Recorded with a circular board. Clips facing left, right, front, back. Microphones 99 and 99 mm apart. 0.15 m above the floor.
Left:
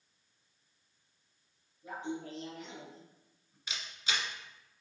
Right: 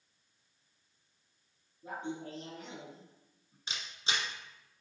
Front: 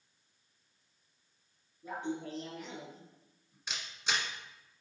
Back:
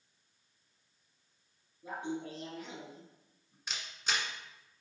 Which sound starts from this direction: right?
A camera shutter, at 3.7 s.